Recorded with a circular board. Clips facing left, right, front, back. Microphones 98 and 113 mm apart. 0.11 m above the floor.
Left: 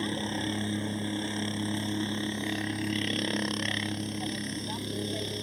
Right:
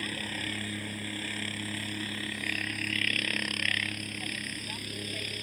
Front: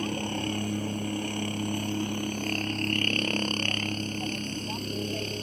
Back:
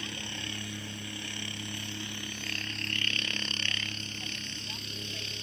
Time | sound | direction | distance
0.0 | a helicopter | 30° left | ?